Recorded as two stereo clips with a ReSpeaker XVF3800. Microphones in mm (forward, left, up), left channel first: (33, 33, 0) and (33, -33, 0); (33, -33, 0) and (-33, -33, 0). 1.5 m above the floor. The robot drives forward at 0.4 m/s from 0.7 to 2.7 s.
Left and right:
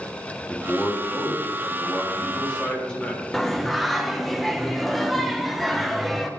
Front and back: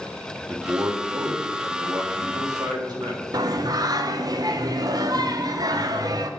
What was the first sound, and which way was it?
A man speaking, 150° left.